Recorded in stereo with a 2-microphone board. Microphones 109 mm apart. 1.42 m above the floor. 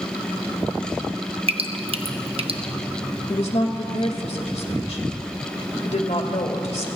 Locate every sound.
1.5 s dripping: 60° right (ahead or behind), 0.8 m
3.3 s a woman speaking: 75° left (ahead or behind), 1.9 m